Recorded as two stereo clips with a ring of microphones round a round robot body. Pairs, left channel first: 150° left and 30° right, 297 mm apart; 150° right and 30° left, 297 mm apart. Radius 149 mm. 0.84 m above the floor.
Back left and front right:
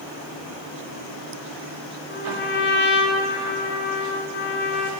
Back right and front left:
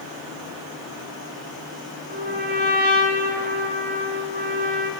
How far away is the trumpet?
About 1.5 m.